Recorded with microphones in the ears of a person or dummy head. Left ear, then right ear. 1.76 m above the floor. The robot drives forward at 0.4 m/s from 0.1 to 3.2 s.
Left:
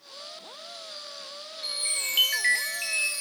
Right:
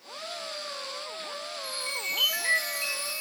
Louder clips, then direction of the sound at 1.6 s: Left 3 dB; 65° left (ahead or behind).